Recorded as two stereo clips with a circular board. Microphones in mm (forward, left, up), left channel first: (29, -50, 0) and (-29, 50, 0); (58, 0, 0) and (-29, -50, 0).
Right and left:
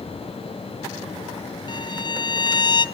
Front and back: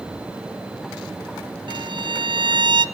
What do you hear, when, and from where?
1.7 s a violin: 110° right, 0.7 m